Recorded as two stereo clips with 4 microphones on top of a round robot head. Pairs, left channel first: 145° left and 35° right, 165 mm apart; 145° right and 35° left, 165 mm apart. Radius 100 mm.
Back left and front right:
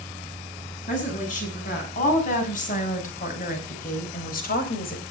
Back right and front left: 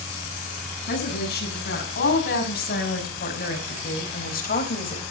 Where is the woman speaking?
170° right, 7.5 m; by 5.0 s 175° left, 4 m.